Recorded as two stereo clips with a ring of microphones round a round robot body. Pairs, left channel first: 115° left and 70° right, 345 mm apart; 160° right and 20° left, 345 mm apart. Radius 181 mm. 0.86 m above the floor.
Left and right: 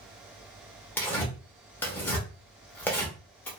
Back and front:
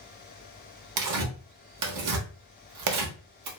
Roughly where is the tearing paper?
Ahead left.